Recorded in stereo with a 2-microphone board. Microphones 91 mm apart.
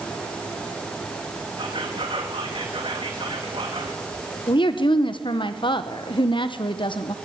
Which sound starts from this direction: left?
A woman speaking, at 4.5 s.